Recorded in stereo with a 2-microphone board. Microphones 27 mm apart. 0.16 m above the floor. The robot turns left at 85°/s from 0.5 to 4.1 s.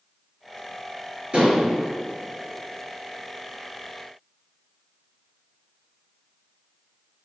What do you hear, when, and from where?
1.3 s dishes clattering: 130° right, 2 m; by 1.7 s 160° right, 2 m